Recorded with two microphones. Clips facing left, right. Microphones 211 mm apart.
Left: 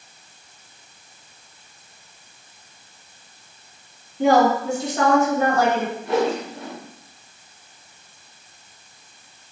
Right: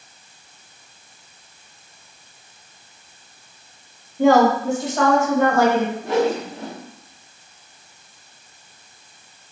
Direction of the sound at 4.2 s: 50° right (ahead or behind).